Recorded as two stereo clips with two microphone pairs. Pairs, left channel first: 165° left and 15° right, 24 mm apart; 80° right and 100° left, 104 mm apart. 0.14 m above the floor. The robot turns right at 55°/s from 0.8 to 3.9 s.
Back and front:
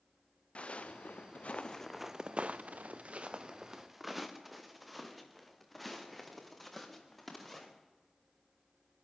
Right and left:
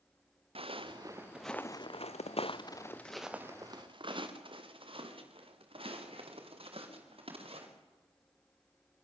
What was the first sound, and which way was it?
Footsteps, 120° left.